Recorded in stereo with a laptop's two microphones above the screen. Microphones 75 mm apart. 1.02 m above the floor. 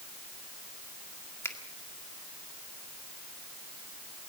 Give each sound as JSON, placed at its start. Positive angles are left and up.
{"t": 1.4, "sound": "a finger snap", "side_deg": 35, "distance_m": 1.8}